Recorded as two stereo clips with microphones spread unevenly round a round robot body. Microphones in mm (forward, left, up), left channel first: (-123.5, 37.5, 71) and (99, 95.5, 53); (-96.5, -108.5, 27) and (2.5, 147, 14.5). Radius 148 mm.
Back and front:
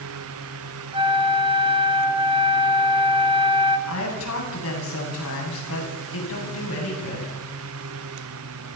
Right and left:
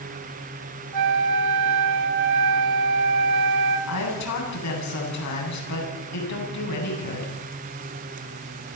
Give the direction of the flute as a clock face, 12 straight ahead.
9 o'clock.